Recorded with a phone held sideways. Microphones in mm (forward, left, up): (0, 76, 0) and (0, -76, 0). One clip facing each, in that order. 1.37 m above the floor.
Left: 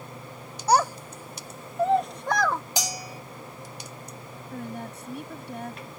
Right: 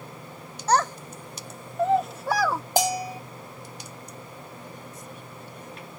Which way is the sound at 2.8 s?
50° right (ahead or behind).